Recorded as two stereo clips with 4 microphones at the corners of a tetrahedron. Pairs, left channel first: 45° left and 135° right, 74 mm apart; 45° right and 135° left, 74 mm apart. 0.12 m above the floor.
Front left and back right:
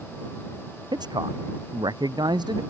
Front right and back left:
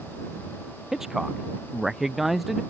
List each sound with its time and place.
0.9 s a man speaking: 140° right; by 2.6 s 135° right